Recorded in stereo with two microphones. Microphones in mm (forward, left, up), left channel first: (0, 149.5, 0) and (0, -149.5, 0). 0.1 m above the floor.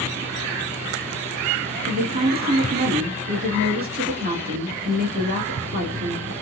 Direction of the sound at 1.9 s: 30° right (ahead or behind).